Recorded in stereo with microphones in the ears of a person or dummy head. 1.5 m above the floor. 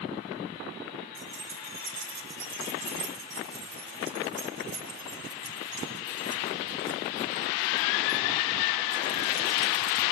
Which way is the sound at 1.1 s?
70° right (ahead or behind).